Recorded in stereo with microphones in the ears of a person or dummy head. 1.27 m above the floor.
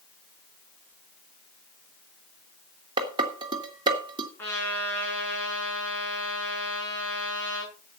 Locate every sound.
3.0 s dishes clattering: 25° right (ahead or behind), 2.5 m
4.4 s a trumpet: 15° left (ahead or behind), 8.5 m